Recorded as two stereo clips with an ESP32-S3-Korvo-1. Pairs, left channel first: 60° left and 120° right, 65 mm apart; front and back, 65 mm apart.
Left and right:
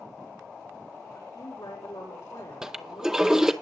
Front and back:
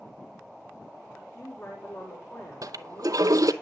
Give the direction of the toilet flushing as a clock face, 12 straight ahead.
7 o'clock.